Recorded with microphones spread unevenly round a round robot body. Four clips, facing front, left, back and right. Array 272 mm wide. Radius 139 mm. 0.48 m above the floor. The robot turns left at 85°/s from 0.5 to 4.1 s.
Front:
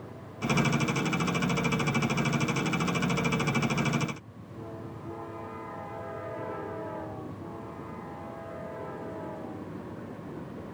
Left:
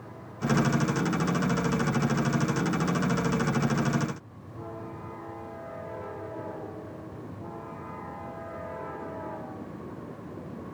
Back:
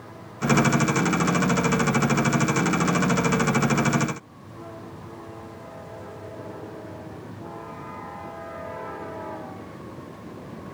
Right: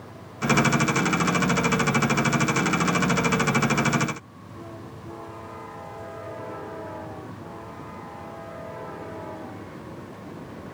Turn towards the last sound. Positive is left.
No sound to turn to.